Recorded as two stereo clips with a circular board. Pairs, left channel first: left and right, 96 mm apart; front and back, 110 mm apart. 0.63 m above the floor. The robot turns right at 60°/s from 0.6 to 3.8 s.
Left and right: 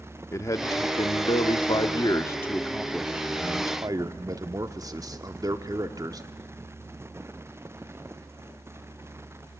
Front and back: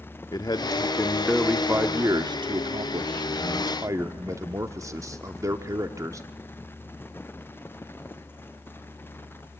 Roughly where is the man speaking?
Ahead left.